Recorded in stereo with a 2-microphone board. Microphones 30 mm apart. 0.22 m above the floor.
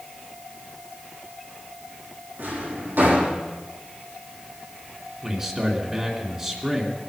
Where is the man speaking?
20° right (ahead or behind), 2.5 m.